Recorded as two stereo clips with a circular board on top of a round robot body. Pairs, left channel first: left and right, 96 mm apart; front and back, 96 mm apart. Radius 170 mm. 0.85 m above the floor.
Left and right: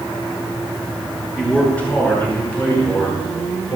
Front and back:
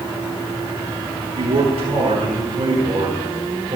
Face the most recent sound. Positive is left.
turn(degrees=145)